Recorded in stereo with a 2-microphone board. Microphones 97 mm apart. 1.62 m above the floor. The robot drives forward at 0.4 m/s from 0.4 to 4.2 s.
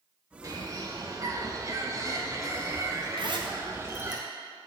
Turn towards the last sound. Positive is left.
turn(degrees=-50)  # may be behind; listen again after turning